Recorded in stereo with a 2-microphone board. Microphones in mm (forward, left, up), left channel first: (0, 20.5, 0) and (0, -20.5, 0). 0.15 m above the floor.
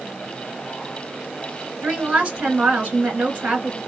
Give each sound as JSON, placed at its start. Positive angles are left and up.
{"t": 1.8, "sound": "a woman speaking", "side_deg": -30, "distance_m": 1.7}